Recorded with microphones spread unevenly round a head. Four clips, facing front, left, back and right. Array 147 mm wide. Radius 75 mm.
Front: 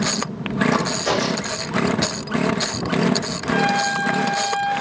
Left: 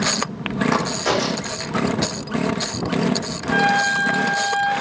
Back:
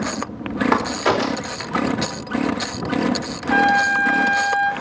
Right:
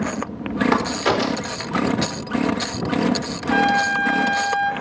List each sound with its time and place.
0.7 s a crack: 175° left, 4.5 m
3.5 s a trumpet: 170° left, 3.5 m